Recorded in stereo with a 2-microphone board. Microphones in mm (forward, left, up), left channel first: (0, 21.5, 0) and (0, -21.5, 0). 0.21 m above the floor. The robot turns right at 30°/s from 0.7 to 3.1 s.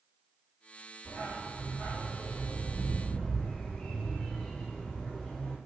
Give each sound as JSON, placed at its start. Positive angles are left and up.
{"t": 1.1, "sound": "a dog barking", "azimuth_deg": 100, "distance_m": 1.3}